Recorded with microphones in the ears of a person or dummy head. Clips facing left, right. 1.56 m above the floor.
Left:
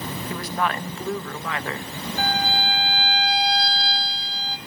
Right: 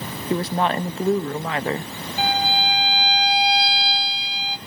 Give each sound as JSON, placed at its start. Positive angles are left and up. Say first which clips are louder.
{"t": 0.3, "sound": "a woman speaking", "louder": "right 6 dB", "side_deg": -25, "distance_m": 0.6}
{"t": 2.2, "sound": "a violin", "louder": "right 3 dB", "side_deg": -15, "distance_m": 1.4}